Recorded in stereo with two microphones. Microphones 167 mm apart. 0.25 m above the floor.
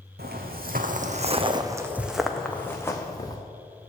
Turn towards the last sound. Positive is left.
turn(degrees=25)  # may be behind; listen again after turning